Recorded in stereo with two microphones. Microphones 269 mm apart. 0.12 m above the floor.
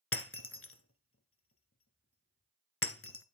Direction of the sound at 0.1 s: 50° left (ahead or behind).